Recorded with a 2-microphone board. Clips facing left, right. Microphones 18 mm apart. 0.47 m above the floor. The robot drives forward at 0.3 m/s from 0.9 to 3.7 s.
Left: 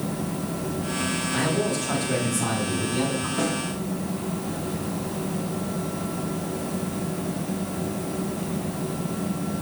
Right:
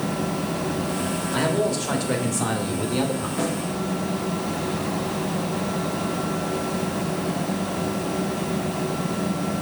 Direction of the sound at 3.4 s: 10° right (ahead or behind).